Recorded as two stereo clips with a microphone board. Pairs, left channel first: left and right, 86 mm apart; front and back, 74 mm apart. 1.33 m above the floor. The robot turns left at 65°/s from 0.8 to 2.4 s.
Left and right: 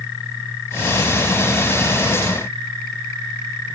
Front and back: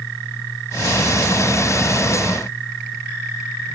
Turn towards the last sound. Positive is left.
No sound to turn to.